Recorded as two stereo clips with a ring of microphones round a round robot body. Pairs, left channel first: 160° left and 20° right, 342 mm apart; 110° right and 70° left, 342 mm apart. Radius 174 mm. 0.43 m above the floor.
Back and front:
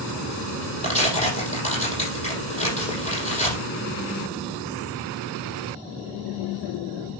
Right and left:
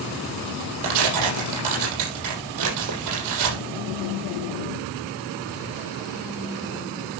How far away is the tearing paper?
About 7 m.